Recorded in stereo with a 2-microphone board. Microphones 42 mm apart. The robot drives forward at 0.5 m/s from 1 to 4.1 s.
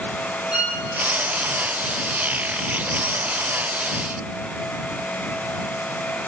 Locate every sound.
0.5 s a violin: 20° right (ahead or behind), 8.5 m